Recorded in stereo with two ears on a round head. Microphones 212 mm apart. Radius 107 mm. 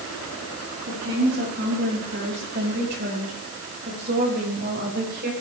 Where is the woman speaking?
45° right (ahead or behind), 9.5 m; by 5.3 s 40° right (ahead or behind), 6.5 m.